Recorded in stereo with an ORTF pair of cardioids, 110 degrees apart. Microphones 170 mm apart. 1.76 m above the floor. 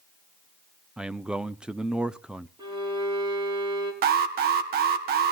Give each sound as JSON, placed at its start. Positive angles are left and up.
{"t": 1.0, "sound": "a man speaking", "azimuth_deg": -5, "distance_m": 0.7}
{"t": 2.6, "sound": "a violin", "azimuth_deg": -25, "distance_m": 5.0}
{"t": 4.0, "sound": "an alarm", "azimuth_deg": -70, "distance_m": 2.0}